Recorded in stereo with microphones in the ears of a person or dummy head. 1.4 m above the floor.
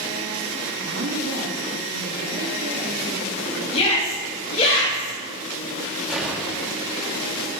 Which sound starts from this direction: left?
A shout, at 3.7 s.